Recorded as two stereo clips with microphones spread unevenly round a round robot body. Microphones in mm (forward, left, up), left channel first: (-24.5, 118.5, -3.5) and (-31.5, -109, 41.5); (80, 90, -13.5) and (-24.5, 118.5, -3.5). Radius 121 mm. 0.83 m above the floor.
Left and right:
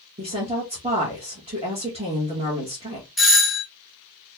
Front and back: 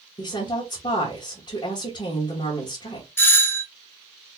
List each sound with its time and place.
0.2 s a woman speaking: 20° right, 1.1 m
3.2 s a doorbell: 20° left, 1.2 m